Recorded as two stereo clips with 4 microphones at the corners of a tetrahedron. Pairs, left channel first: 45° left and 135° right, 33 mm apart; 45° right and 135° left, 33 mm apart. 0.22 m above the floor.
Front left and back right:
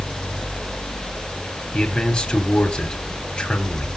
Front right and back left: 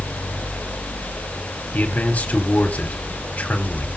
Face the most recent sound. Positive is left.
turn(degrees=-10)